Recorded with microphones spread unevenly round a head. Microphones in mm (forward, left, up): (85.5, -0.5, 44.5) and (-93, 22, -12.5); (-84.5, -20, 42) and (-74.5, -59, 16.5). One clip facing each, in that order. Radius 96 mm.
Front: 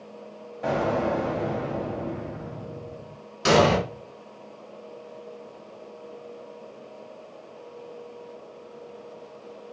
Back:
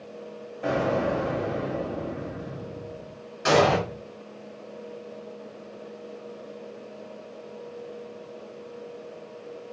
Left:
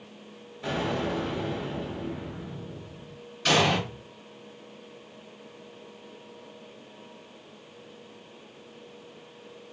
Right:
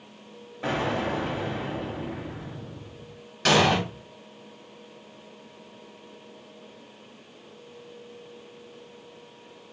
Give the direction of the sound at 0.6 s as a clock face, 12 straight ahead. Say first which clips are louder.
Even, right 2 dB; 3 o'clock.